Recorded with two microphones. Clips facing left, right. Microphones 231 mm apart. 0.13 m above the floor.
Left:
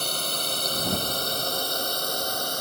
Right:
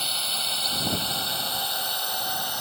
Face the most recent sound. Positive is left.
turn(degrees=45)  # may be behind; listen again after turning